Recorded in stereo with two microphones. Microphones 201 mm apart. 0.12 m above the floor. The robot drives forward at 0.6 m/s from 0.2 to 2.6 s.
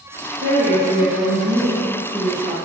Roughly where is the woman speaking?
Right.